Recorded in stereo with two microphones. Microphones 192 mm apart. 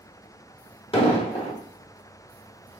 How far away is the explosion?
About 1.3 m.